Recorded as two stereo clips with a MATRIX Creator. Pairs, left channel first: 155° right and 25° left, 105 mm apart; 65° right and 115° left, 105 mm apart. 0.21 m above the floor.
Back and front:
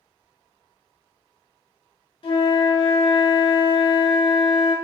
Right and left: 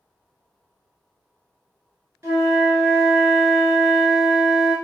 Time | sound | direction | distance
2.2 | a flute | 175° left | 0.8 m